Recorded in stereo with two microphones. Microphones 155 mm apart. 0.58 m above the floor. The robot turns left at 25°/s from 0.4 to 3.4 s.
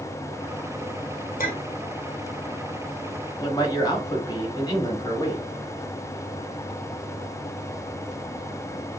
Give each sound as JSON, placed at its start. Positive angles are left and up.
{"t": 1.4, "sound": "a clink", "side_deg": 70, "distance_m": 1.1}
{"t": 3.4, "sound": "a man speaking", "side_deg": 25, "distance_m": 1.3}